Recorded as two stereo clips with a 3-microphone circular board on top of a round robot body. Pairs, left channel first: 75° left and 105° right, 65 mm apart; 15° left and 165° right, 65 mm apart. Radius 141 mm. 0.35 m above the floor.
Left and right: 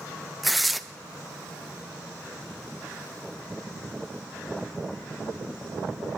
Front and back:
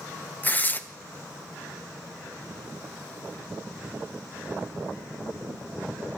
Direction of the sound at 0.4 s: 15° right.